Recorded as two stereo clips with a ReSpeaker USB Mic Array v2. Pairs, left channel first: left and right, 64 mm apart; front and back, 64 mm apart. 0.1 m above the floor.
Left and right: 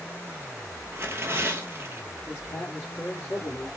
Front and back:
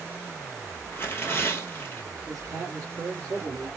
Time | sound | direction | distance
0.9 | tearing paper | 45° right | 1.1 m
2.3 | a man speaking | 150° left | 2.0 m